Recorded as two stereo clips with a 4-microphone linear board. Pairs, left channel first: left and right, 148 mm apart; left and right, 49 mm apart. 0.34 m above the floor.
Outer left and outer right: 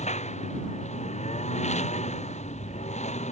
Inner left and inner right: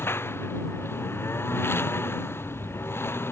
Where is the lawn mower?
50° left (ahead or behind).